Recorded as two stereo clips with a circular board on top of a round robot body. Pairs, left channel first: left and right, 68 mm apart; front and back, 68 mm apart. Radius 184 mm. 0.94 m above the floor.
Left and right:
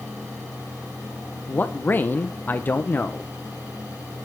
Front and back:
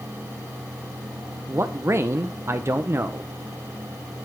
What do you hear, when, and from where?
1.5 s a man speaking: 145° left, 1.0 m